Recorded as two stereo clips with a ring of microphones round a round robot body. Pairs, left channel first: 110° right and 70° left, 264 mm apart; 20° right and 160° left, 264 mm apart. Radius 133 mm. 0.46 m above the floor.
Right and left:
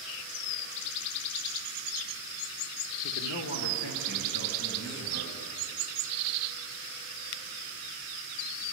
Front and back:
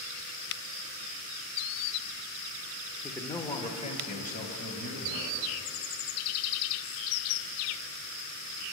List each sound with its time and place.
3.0 s a man speaking: 110° right, 1.0 m; by 5.5 s 80° right, 3.5 m